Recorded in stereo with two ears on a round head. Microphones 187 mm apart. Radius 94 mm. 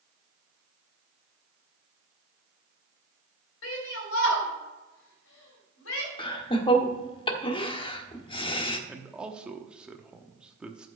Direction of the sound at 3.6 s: 70° left (ahead or behind).